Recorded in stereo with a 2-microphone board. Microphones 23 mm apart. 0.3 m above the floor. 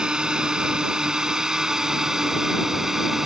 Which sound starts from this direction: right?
A drone, at 0.0 s.